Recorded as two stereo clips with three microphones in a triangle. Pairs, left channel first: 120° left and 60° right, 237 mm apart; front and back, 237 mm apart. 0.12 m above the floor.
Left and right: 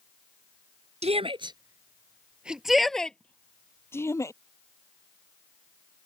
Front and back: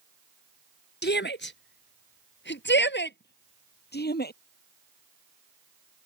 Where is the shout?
10° right; by 4.3 s 45° left.